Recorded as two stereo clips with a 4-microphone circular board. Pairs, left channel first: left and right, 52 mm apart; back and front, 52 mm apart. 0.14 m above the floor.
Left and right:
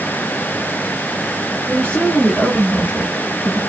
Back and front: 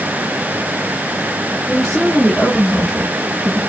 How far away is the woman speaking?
About 1.9 m.